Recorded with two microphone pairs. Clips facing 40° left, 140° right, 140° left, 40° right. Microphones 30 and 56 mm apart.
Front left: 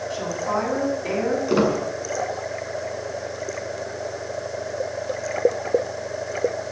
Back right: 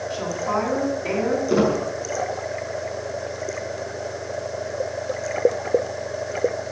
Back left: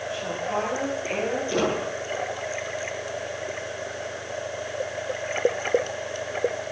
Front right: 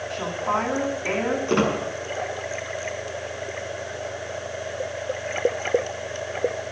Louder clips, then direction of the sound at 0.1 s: Back right 1 dB, front right 4 dB; 50° right.